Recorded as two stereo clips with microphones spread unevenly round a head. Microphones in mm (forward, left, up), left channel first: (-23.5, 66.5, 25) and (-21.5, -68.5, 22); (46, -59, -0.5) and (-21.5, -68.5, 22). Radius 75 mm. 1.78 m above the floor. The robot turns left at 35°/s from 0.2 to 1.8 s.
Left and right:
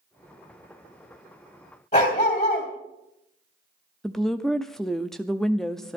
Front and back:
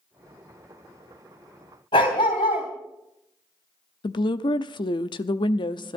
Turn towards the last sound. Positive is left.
turn(degrees=5)